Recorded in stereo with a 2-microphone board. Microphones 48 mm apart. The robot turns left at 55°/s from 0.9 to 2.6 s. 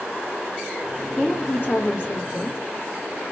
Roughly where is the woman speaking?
Behind left.